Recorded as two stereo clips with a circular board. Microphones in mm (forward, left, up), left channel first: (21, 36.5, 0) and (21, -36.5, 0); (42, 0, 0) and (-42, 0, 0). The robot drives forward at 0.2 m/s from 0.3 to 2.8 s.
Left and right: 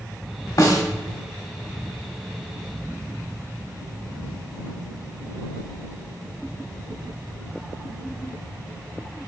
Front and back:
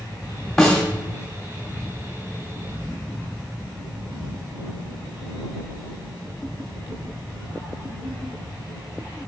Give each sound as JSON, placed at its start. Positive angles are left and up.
{"t": 0.6, "sound": "a snare drum", "azimuth_deg": 85, "distance_m": 1.7}